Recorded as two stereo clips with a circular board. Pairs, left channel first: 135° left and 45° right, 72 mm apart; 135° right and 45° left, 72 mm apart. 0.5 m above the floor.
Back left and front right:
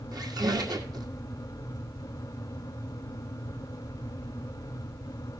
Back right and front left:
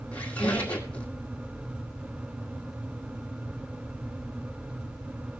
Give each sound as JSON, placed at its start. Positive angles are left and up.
{"t": 0.1, "sound": "a squeak", "azimuth_deg": -65, "distance_m": 1.9}